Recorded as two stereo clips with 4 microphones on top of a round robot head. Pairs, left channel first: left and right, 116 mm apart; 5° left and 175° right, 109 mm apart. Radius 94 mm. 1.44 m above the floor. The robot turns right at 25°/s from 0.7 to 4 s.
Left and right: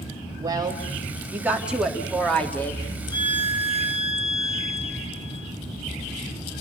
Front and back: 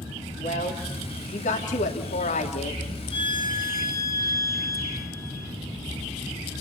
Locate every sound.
0.4 s a woman speaking: 35° right, 3.5 m; by 2.8 s 20° left, 3.5 m
3.1 s a violin: 40° left, 3 m; by 5.5 s 65° left, 3 m